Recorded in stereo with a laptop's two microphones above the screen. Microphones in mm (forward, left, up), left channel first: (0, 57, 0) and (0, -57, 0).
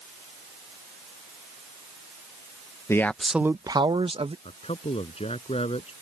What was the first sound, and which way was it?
A man speaking, 25° left (ahead or behind).